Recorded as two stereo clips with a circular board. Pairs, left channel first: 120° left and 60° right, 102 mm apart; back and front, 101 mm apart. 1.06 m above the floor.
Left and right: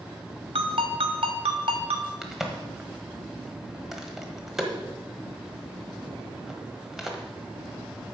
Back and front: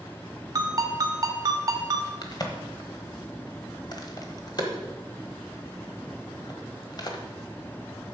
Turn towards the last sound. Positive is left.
turn(degrees=-145)